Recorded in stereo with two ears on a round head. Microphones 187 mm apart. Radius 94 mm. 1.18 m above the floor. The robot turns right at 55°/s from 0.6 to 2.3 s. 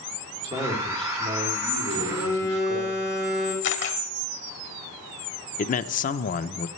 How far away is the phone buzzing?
About 8.5 m.